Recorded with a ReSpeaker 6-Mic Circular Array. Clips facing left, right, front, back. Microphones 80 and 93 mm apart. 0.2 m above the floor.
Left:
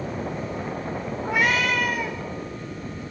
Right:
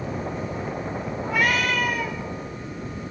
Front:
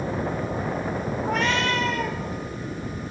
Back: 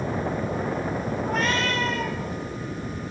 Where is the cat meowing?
20° left, 4.5 m.